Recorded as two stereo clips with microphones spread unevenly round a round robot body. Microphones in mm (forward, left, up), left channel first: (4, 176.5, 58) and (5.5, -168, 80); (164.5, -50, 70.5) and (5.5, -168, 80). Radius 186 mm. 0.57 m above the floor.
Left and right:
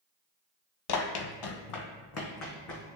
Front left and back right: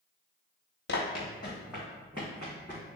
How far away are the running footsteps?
About 0.7 m.